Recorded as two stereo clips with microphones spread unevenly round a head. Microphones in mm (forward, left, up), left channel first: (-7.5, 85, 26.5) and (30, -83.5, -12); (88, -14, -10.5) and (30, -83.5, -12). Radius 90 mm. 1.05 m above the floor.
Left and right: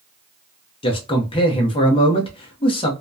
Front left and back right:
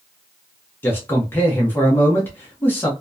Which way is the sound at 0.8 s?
65° left.